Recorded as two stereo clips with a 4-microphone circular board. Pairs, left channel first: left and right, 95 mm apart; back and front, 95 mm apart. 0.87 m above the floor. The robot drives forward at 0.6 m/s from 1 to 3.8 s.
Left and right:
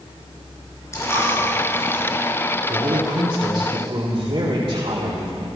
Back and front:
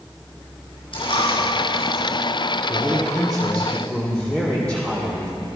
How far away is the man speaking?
About 2.0 m.